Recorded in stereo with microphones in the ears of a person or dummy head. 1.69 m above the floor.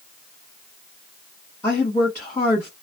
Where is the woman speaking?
10° left (ahead or behind), 2.0 m.